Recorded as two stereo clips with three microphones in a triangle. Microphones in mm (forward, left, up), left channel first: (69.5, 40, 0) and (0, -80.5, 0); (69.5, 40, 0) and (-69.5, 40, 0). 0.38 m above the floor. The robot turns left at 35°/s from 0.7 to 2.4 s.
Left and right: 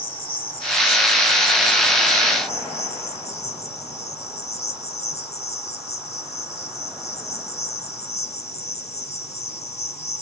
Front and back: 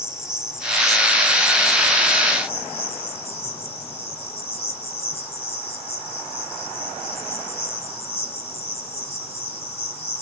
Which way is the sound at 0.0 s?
95° left.